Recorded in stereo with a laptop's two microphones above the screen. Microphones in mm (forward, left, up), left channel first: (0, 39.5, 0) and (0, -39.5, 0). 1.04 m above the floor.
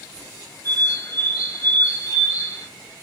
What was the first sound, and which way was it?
A bird, 45° left (ahead or behind).